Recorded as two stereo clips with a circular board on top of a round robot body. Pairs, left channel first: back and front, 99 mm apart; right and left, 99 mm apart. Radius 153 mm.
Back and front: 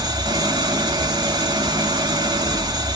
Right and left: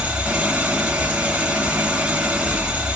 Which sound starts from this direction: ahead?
An engine running, at 0.0 s.